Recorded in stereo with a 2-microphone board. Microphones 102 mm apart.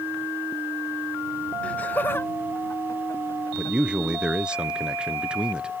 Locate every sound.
1.6 s laughter: 10° left (ahead or behind); by 3.8 s 40° left (ahead or behind)
3.5 s a man speaking: 10° right (ahead or behind)